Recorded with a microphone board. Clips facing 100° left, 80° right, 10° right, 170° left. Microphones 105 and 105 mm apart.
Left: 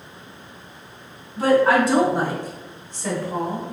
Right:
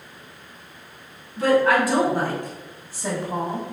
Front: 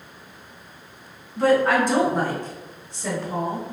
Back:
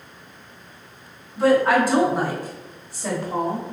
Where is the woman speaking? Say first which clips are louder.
Left 2 dB, back 1 dB; 85° left, 1.4 m; by 3.6 s 115° right, 1.3 m.